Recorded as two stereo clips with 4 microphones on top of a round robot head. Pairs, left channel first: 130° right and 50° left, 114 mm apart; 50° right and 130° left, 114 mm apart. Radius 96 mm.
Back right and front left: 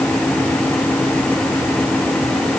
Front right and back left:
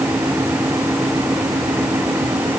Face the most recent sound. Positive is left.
No sound to turn to.